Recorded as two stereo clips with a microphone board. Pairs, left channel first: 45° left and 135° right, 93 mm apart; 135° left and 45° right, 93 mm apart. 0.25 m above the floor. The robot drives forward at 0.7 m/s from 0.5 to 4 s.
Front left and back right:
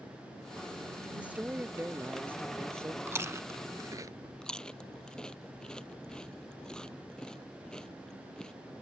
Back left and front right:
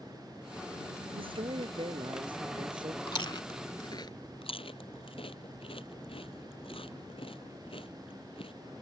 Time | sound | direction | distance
1.2 | a woman speaking | 60° right | ?
3.1 | chewing | 160° left | ?
4.4 | chewing | 125° left | ?